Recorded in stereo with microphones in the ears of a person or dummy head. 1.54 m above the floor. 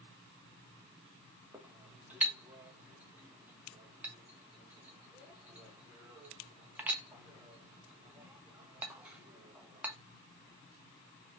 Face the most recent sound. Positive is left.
turn(degrees=-10)  # may be behind; listen again after turning